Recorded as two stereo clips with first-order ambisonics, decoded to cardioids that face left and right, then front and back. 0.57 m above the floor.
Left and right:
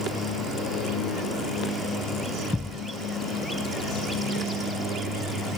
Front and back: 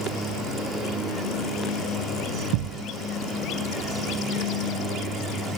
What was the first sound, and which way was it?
A thud, 175° left.